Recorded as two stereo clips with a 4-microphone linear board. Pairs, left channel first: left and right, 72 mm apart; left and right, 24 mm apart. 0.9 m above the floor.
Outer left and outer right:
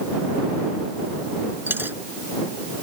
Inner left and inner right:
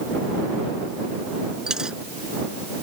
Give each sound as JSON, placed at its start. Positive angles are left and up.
{"t": 1.7, "sound": "a dropped coin", "side_deg": -30}